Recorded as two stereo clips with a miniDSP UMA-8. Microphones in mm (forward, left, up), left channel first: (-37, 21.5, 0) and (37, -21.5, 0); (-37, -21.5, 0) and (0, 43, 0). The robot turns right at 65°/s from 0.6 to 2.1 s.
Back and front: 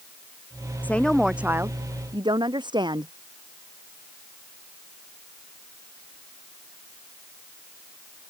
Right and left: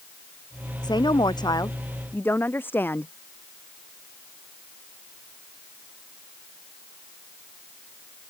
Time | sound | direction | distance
0.8 | a woman speaking | 140° right | ?